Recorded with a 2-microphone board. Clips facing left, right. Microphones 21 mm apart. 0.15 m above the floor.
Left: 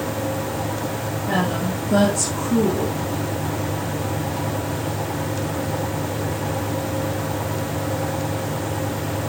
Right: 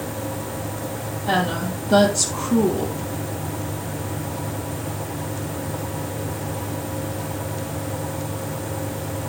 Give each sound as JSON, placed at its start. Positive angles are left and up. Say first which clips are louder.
{"t": 1.3, "sound": "a woman speaking", "louder": "right 1 dB", "side_deg": -60, "distance_m": 4.0}